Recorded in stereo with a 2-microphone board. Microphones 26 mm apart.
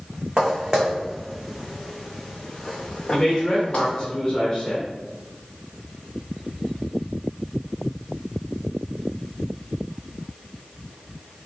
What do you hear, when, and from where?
0.4 s footsteps: 35° right (ahead or behind), 1.3 m; by 4.0 s 40° left (ahead or behind), 1.7 m
3.1 s a man speaking: 15° left (ahead or behind), 1.2 m